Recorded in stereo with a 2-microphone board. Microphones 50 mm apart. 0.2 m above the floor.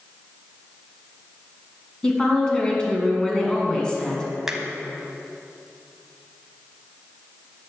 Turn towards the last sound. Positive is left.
turn(degrees=-10)  # may be behind; listen again after turning